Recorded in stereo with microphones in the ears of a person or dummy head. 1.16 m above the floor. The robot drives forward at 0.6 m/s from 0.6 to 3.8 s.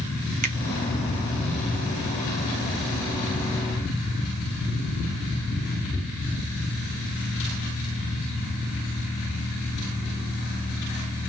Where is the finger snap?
40° right (ahead or behind), 0.6 m.